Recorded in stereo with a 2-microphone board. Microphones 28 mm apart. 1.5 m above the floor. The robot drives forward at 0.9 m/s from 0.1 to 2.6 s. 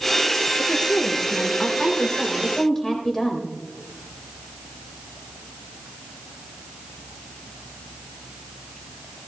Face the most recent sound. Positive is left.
turn(degrees=10)  # may be behind; listen again after turning